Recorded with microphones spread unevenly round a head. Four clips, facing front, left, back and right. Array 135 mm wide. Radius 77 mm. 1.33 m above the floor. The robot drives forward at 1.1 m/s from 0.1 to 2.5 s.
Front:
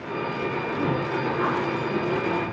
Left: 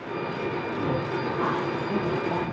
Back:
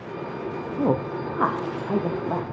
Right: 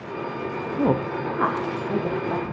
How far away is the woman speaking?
About 0.7 m.